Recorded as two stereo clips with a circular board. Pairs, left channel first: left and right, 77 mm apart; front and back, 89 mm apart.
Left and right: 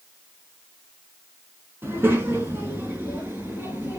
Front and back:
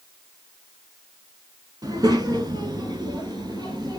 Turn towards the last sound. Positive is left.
turn(degrees=-150)